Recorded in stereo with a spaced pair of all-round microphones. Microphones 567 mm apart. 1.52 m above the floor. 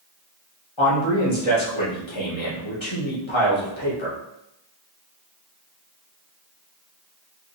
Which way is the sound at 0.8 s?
55° left (ahead or behind).